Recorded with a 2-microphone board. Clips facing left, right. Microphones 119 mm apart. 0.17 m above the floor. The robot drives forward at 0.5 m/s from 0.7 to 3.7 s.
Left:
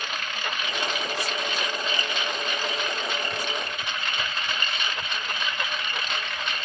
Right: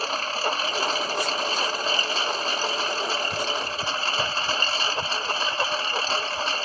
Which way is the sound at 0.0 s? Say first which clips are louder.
Right 6 dB; 35° right (ahead or behind).